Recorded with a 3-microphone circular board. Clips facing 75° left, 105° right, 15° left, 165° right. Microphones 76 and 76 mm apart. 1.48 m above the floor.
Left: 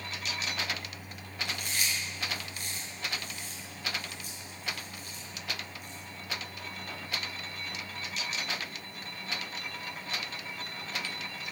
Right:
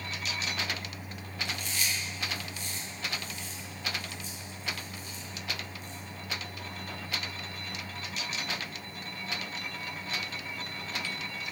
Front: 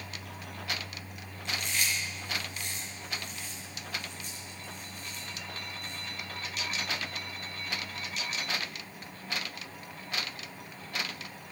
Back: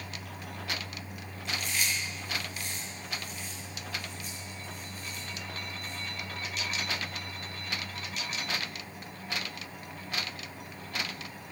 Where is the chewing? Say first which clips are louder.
Even, even; 110° left, 6.5 m.